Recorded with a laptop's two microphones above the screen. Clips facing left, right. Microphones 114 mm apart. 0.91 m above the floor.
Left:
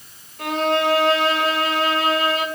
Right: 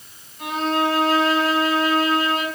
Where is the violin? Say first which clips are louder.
Left 2 dB; 80° left, 2.5 m.